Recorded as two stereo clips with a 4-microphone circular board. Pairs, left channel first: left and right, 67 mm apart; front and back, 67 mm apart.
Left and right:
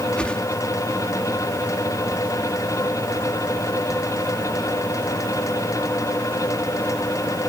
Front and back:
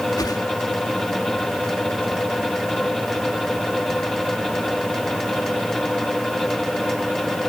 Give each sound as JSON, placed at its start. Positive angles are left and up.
{"t": 0.2, "sound": "a whoosh", "azimuth_deg": 15}